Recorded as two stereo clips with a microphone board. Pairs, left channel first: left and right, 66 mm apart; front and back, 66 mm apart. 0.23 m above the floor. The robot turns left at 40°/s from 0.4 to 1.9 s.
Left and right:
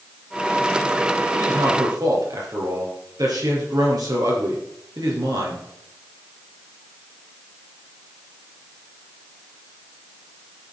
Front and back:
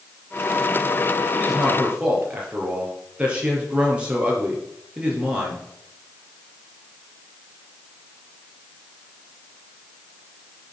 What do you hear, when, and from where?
1.3 s a man speaking: 85° right, 5.5 m; by 5.7 s 110° right, 5.5 m